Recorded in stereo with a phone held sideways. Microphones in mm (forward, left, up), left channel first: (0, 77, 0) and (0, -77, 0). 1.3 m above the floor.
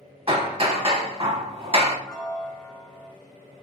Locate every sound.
0.3 s hammering: 40° right (ahead or behind), 0.8 m
2.1 s a piano: 5° left (ahead or behind), 1.3 m